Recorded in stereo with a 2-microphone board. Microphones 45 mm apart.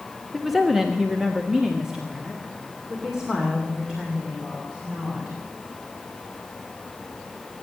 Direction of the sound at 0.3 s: 5° right (ahead or behind).